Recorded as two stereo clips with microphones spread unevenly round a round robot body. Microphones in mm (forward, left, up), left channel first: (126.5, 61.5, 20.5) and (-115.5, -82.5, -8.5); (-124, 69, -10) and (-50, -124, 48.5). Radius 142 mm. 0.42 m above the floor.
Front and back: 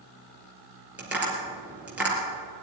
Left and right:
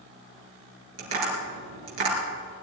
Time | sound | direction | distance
1.0 | tapping | 65° right | 4 m